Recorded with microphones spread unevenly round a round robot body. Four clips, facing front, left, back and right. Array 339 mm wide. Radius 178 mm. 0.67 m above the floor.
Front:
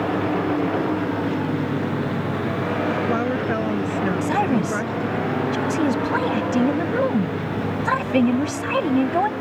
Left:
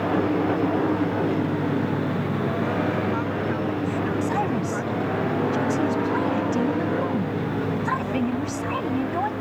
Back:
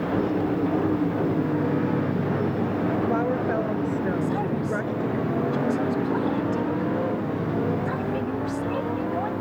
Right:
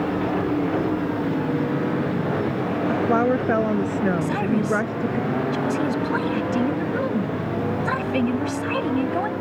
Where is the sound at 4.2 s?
10° right.